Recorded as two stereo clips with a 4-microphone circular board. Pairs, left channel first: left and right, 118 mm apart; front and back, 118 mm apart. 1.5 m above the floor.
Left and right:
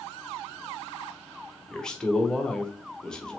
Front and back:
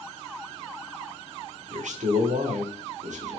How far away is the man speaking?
About 1.0 m.